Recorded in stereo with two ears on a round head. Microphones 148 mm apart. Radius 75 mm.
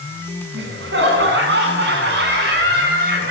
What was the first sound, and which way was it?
Laughter, 75° right (ahead or behind).